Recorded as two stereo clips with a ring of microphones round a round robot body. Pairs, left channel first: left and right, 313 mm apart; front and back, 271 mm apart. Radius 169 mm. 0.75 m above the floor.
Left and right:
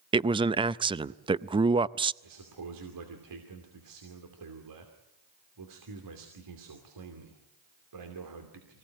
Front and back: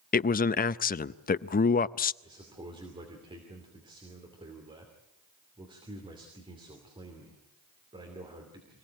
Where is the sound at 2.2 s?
105° right, 2.5 m.